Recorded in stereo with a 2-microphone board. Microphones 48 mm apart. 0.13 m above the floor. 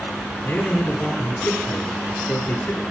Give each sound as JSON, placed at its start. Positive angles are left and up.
{"t": 0.4, "sound": "a man speaking", "side_deg": 35, "distance_m": 2.0}